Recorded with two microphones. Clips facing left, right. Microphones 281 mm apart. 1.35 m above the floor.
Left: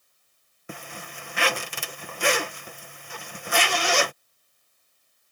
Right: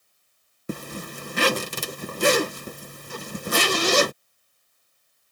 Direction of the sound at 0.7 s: 45° right (ahead or behind).